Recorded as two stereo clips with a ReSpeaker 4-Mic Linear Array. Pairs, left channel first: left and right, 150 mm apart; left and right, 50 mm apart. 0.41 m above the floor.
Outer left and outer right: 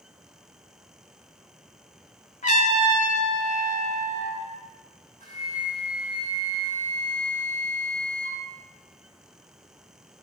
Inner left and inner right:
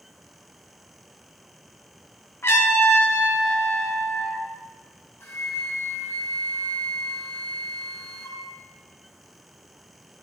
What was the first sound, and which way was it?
A trumpet, 55° left (ahead or behind).